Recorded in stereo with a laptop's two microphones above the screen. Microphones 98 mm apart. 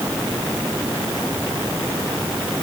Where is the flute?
No flute in this recording.